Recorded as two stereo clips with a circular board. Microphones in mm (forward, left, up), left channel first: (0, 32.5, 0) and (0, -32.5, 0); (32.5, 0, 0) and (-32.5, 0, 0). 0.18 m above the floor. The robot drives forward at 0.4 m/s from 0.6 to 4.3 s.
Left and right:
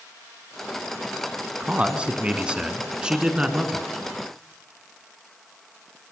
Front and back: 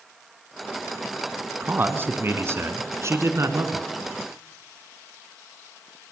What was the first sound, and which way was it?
A man speaking, 145° right.